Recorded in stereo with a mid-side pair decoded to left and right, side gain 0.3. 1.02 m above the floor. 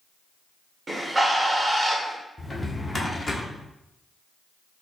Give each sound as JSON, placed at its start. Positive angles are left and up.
{"t": 0.9, "sound": "a bird", "azimuth_deg": -30, "distance_m": 1.4}
{"t": 2.4, "sound": "a drawer", "azimuth_deg": 30, "distance_m": 1.3}